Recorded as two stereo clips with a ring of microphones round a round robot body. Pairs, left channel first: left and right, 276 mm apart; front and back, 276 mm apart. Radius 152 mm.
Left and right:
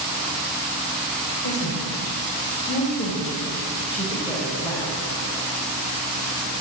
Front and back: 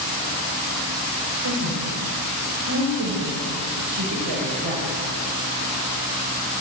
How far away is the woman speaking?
About 4 m.